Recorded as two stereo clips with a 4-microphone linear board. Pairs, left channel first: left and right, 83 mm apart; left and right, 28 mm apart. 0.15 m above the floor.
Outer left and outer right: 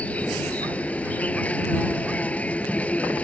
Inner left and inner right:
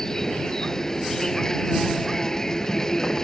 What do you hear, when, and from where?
0.0 s an insect: 15° left (ahead or behind)